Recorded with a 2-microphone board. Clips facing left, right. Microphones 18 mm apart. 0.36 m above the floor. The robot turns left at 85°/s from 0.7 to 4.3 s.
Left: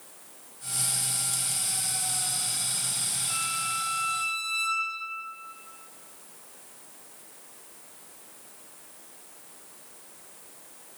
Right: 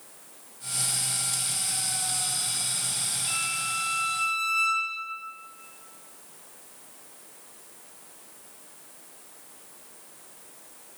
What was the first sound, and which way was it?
A violin, 40° right.